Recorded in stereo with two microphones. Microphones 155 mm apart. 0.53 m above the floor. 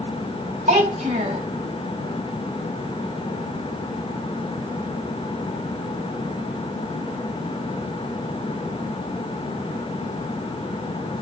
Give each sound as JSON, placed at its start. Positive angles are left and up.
{"t": 0.7, "sound": "a child speaking", "side_deg": -60, "distance_m": 2.0}